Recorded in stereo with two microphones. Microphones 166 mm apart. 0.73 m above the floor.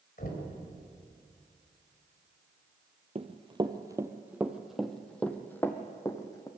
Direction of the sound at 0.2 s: 65° left (ahead or behind).